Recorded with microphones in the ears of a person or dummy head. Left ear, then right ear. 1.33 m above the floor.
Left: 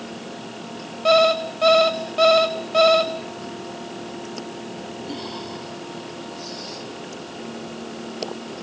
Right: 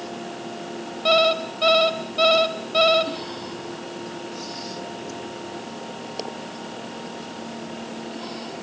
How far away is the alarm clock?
About 0.9 m.